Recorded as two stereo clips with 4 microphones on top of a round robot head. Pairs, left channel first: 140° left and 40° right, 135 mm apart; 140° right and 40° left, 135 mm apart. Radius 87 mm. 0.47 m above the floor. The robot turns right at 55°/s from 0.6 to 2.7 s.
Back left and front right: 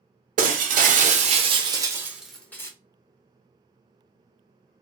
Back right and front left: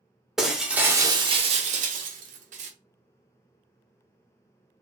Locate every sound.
0.4 s breaking glass: 45° right, 0.8 m; by 2.7 s 70° left, 0.8 m